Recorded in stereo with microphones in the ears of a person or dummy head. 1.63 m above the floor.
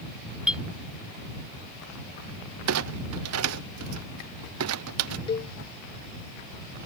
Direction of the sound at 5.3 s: 25° left (ahead or behind).